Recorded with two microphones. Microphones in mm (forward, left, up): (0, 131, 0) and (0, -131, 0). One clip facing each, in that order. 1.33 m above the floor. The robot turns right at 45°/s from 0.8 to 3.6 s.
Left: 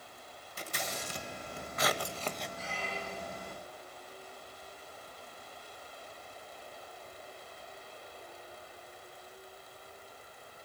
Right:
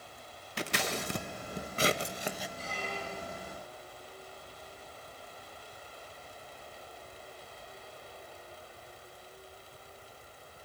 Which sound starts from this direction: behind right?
A squeak, at 2.6 s.